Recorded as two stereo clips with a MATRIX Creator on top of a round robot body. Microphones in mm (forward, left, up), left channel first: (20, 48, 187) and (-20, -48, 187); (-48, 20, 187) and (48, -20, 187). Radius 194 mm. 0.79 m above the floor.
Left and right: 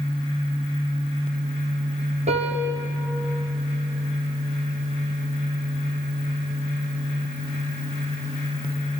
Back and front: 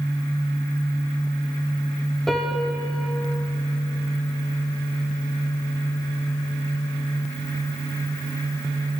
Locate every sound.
2.3 s a piano: 115° right, 0.5 m